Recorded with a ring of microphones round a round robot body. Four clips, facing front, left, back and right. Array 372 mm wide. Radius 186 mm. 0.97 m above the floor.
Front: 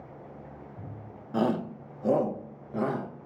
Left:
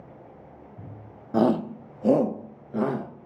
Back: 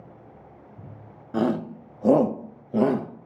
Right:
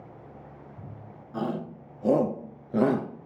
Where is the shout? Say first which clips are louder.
Left 10 dB, back 3 dB; 105° left, 1.0 m; by 3.3 s 130° right, 1.3 m.